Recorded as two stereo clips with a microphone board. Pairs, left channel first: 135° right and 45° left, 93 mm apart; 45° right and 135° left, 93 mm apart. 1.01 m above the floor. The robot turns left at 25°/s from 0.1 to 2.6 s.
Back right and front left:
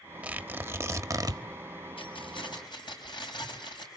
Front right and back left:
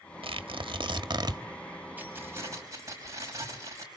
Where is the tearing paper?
120° left, 1.2 m; by 1.4 s 90° left, 1.2 m.